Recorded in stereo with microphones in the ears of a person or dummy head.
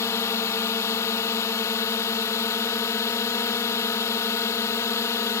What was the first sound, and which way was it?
A drone, 15° left (ahead or behind).